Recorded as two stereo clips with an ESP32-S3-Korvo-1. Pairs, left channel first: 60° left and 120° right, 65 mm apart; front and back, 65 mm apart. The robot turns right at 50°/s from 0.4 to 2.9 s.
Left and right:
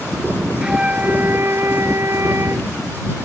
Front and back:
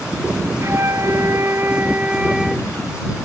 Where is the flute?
165° left; by 2.7 s 90° right.